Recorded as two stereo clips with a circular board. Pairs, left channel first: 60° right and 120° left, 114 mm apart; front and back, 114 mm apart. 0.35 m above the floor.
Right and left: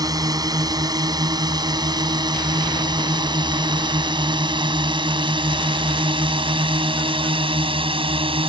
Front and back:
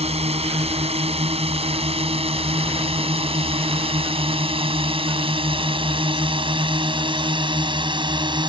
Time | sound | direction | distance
0.0 | a drone | 170° left | ?